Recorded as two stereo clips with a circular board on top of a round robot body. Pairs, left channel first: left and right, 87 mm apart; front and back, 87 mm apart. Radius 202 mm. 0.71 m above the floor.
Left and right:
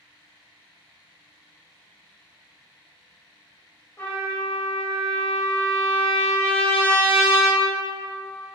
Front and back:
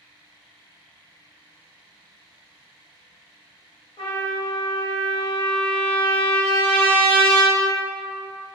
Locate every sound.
4.0 s a trumpet: 25° left, 1.0 m